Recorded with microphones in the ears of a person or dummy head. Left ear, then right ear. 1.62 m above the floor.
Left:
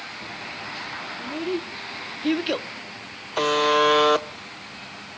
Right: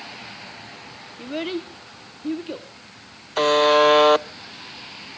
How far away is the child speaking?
About 0.7 m.